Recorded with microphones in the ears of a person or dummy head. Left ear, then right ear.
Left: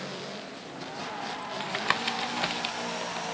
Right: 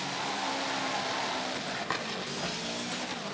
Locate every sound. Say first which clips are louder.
1.6 s tapping: left 5 dB; 45° left (ahead or behind), 1.1 m